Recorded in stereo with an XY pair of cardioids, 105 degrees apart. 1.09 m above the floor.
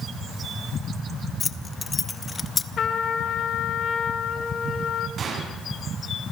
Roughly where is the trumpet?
Ahead left.